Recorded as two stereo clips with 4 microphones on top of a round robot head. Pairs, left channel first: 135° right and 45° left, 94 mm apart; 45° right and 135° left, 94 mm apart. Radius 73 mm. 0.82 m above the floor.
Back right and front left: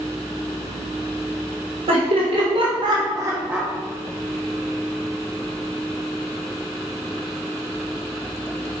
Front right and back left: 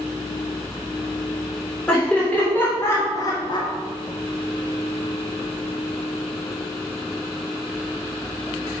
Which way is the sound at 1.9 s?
30° left.